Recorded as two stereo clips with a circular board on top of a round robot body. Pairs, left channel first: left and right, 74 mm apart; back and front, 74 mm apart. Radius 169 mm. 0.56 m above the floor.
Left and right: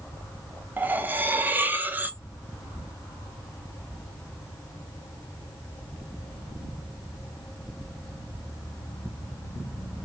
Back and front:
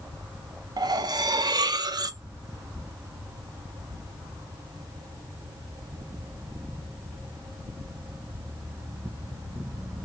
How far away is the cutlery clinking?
About 0.6 m.